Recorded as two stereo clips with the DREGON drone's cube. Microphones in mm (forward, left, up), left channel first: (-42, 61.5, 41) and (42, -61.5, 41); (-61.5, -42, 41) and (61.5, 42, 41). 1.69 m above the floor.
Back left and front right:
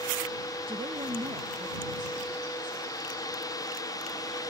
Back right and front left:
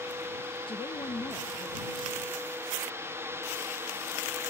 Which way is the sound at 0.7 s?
100° right.